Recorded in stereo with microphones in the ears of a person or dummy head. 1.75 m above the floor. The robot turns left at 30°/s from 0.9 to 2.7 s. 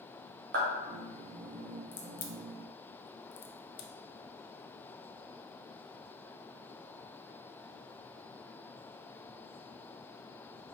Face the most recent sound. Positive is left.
turn(degrees=45)  # may be behind; listen again after turning